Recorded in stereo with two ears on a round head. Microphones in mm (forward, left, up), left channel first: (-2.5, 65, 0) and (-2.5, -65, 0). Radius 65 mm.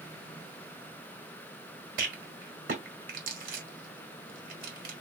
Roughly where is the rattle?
Right.